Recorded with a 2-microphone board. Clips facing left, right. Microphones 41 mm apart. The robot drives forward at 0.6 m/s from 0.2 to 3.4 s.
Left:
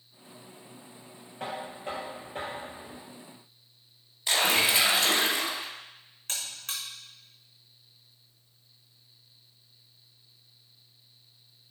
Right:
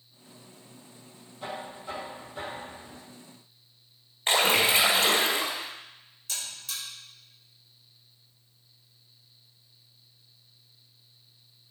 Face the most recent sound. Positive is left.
turn(degrees=55)  # may be behind; listen again after turning